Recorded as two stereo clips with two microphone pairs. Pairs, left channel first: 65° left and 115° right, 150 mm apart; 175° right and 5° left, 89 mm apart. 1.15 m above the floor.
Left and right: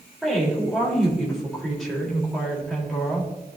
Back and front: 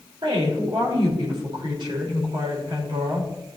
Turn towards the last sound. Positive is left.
turn(degrees=-20)